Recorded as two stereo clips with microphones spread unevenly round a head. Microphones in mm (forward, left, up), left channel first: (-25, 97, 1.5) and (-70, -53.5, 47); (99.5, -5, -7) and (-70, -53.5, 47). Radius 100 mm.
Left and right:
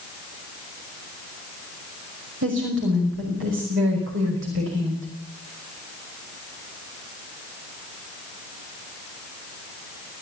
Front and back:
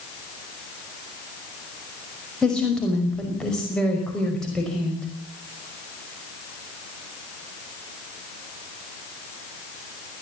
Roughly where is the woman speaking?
Right.